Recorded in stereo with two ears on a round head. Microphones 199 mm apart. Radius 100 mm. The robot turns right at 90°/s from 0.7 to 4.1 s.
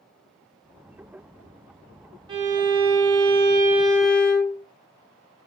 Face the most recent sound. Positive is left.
turn(degrees=5)